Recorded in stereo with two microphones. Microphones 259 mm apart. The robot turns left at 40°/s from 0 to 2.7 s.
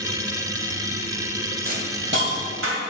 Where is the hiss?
30° right (ahead or behind), 2.0 m; by 2.8 s 55° right (ahead or behind), 2.0 m.